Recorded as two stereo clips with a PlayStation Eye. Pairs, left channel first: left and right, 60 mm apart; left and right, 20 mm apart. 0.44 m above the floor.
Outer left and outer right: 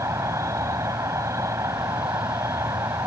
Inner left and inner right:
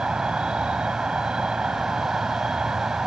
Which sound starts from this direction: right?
An insect, at 0.0 s.